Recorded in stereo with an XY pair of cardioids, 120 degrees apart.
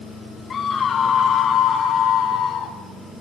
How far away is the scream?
About 2.5 m.